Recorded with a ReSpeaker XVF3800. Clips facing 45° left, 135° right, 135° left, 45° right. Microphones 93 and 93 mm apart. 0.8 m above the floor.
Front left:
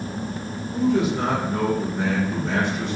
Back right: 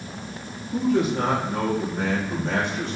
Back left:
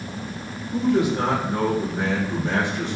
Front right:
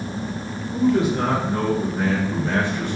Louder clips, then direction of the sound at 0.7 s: Front left 1 dB, front right 1 dB; 155° right.